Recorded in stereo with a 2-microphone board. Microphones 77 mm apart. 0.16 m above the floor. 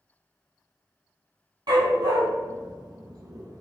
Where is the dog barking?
70° right (ahead or behind), 1.8 m; by 3.6 s 50° right (ahead or behind), 0.8 m.